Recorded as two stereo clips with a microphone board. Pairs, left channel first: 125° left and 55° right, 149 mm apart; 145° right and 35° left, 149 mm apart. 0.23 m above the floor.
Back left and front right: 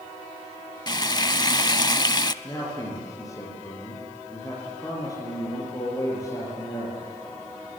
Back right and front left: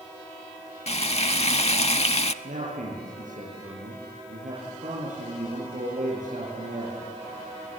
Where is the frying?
Straight behind, 0.6 m.